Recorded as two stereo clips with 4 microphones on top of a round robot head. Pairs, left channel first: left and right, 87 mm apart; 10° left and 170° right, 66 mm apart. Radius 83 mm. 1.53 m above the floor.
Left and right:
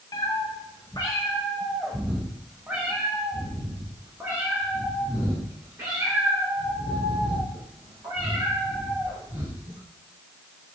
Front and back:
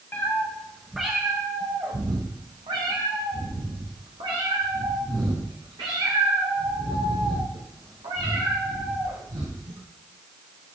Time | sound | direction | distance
0.1 | a cat meowing | 55° left | 0.9 m